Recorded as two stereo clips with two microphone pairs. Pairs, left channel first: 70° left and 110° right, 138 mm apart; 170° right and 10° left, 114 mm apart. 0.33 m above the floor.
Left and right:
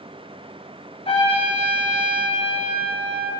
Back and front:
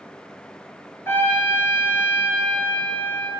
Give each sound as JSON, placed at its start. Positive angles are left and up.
{"t": 1.1, "sound": "a trumpet", "azimuth_deg": 120, "distance_m": 2.5}